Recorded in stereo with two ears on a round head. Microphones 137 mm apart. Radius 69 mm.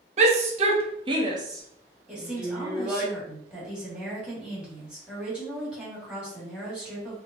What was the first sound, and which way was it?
A shout, 45° right (ahead or behind).